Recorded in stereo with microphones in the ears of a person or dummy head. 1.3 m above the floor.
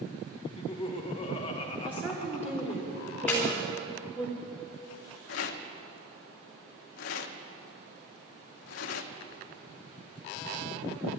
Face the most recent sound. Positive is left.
turn(degrees=70)  # may be behind; listen again after turning